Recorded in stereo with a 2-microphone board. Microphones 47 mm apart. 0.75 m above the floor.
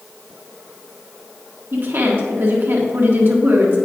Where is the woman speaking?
55° right (ahead or behind), 1.5 m.